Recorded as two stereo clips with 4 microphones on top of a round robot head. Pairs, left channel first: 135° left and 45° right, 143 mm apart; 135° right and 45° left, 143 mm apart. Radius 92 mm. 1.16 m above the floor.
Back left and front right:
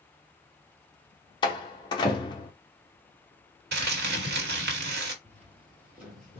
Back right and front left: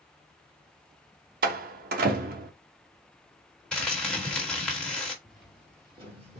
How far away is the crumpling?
About 1.2 m.